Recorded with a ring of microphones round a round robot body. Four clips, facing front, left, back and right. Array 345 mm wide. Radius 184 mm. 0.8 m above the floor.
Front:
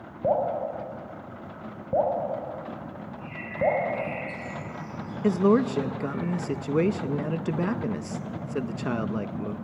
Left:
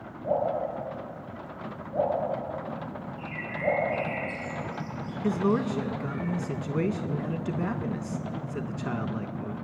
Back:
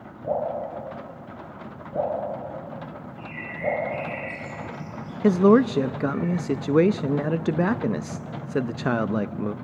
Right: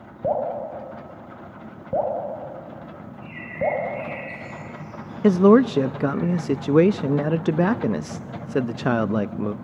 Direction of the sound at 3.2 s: 75° left.